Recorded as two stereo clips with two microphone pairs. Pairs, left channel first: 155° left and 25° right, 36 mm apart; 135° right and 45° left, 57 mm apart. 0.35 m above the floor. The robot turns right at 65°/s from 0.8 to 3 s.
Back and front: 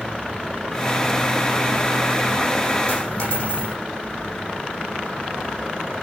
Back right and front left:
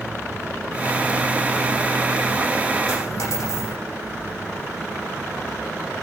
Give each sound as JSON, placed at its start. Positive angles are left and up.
{"t": 2.9, "sound": "a dropped coin", "azimuth_deg": -155, "distance_m": 8.5}